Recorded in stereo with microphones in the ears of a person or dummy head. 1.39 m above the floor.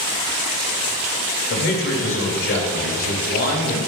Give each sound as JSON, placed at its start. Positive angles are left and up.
{"t": 1.5, "sound": "a man speaking", "side_deg": 65, "distance_m": 2.5}